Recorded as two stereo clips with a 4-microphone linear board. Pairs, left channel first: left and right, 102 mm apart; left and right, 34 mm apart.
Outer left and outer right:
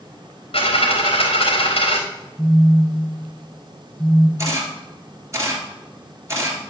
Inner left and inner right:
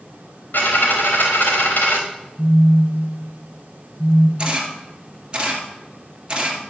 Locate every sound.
0.5 s a dropped coin: 70° left (ahead or behind), 3.5 m
2.4 s a phone buzzing: 5° left (ahead or behind), 3.5 m
4.4 s a camera shutter: 30° right (ahead or behind), 2 m